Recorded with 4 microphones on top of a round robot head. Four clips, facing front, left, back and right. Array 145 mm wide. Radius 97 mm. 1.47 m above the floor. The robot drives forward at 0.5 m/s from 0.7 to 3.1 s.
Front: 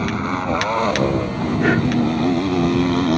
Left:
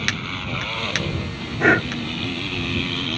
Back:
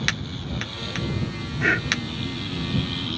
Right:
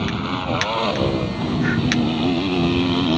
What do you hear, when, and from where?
0.0 s a motorcycle: 30° right
1.6 s breathing: 60° left; by 1.9 s 65° left